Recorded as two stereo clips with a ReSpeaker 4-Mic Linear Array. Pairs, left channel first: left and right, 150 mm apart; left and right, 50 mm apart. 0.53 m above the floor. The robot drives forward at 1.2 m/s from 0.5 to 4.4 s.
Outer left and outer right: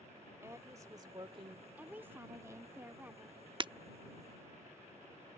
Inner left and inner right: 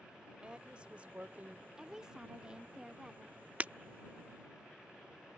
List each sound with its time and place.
0.4 s a woman speaking: 20° right (ahead or behind); by 1.7 s 40° right (ahead or behind)
1.8 s a woman speaking: 10° right (ahead or behind)
3.6 s breaking glass: 30° right (ahead or behind)